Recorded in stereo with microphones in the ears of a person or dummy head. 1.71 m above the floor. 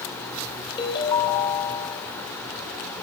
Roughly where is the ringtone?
Left.